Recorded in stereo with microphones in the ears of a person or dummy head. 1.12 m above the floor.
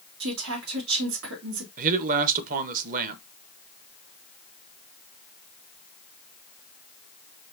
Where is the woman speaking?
70° right (ahead or behind), 1.9 m.